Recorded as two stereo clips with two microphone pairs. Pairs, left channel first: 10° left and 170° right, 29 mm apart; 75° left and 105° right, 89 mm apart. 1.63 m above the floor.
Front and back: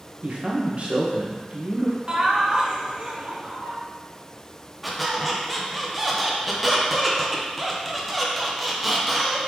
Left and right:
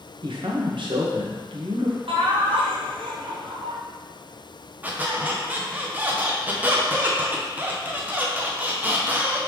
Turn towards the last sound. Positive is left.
turn(degrees=-100)